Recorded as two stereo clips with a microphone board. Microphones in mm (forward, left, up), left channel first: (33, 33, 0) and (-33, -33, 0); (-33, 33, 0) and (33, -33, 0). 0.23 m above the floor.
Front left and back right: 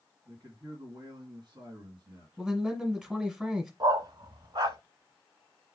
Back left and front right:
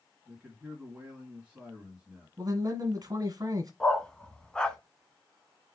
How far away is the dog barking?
About 0.6 m.